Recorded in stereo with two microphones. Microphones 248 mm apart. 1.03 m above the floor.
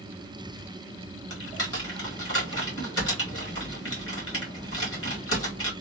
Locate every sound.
1.3 s typing on a keyboard: 60° left (ahead or behind), 1.6 m